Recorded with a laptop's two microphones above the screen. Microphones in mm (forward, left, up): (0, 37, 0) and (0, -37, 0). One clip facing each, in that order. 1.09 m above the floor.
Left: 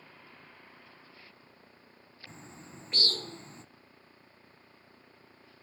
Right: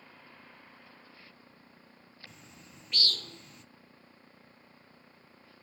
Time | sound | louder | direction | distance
2.3 | a bird | left 5 dB | 30° left (ahead or behind) | 0.5 m